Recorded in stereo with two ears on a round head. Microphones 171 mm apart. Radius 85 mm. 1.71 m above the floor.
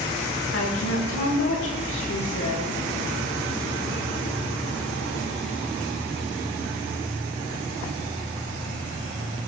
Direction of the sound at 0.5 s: 80° left.